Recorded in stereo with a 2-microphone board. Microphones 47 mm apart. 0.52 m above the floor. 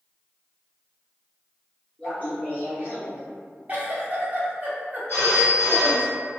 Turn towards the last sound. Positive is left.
turn(degrees=55)  # may be behind; listen again after turning